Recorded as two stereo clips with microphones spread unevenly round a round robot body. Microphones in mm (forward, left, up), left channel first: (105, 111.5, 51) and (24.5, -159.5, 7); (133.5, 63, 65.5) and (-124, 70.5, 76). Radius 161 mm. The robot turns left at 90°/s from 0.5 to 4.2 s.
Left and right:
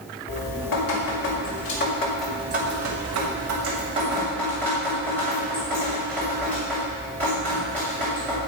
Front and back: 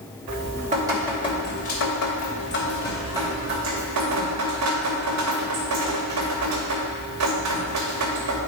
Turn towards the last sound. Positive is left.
turn(degrees=165)